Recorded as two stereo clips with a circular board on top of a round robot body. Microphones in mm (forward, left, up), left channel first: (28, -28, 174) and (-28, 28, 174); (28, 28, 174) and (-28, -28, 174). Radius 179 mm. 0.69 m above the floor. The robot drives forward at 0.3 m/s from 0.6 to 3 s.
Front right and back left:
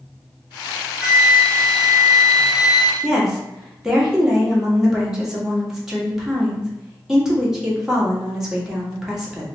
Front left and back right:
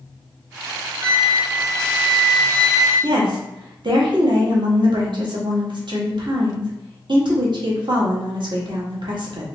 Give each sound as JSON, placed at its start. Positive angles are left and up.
{"t": 1.0, "sound": "a flute", "azimuth_deg": -140, "distance_m": 0.9}
{"t": 3.0, "sound": "a woman speaking", "azimuth_deg": -140, "distance_m": 1.4}